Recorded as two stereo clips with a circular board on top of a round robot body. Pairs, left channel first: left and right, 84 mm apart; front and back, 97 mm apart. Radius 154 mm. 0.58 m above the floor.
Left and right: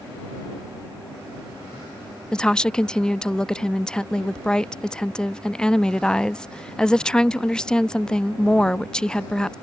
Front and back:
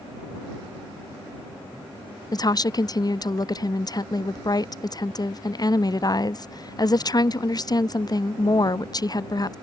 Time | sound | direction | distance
2.3 | a woman speaking | 15° left | ?